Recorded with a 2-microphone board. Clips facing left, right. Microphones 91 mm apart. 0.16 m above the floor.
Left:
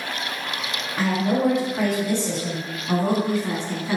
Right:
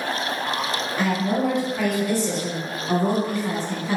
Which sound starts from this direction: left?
A woman speaking, at 1.0 s.